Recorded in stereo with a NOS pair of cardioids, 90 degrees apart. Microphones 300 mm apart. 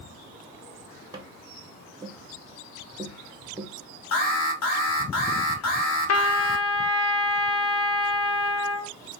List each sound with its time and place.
1.1 s tapping: 15° right, 0.9 m
4.1 s an alarm: 55° left, 1.3 m
6.1 s a trumpet: 55° left, 0.7 m